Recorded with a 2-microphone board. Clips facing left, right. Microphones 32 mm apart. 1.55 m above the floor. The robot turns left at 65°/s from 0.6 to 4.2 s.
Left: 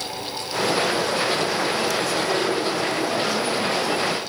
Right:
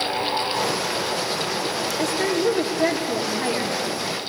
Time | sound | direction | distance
2.0 | a woman speaking | 55° right | 3 m